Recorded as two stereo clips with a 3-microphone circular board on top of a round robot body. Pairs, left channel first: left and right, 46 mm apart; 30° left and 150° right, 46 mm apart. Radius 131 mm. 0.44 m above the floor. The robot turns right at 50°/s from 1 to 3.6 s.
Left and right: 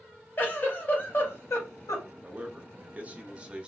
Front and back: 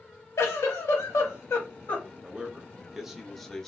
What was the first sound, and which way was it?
A giggle, 35° left.